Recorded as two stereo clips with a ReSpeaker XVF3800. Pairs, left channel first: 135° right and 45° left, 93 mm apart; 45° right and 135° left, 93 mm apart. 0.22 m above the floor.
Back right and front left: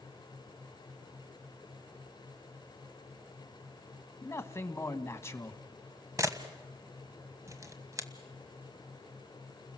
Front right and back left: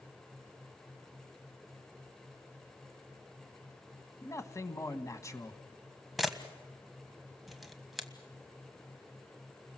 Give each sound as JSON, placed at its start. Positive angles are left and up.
{"t": 4.2, "sound": "a man speaking", "azimuth_deg": -85, "distance_m": 1.5}
{"t": 6.2, "sound": "a camera shutter", "azimuth_deg": 50, "distance_m": 1.3}